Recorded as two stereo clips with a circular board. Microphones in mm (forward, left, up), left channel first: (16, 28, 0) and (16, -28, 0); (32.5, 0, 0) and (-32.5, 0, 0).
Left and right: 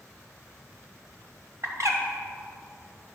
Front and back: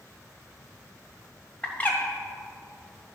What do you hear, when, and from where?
1.6 s a bird: 65° right, 1.2 m